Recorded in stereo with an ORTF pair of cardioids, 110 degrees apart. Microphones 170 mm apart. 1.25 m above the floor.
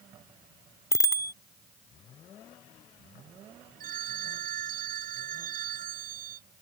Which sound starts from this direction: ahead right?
A phone ringing, at 3.8 s.